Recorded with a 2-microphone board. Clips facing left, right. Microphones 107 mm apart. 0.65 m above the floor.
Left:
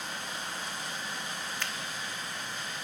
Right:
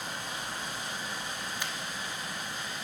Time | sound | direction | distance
1.6 | a finger snap | 15° right (ahead or behind) | 0.8 m